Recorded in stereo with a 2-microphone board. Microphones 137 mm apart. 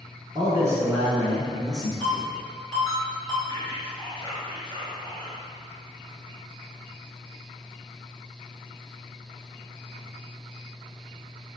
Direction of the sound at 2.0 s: 30° left (ahead or behind).